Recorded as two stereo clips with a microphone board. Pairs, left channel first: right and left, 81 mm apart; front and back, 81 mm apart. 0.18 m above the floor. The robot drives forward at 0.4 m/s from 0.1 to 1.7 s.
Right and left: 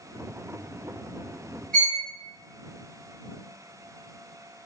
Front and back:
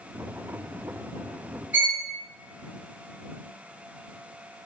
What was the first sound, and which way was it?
A violin, 150° right.